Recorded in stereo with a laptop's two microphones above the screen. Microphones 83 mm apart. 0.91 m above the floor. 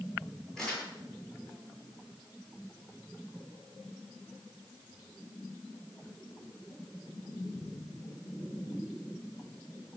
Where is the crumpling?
10° left (ahead or behind), 9 m.